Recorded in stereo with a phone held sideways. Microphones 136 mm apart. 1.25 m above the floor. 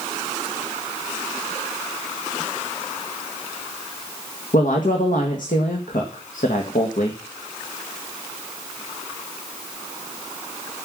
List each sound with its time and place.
4.5 s a woman speaking: 75° left (ahead or behind), 1.7 m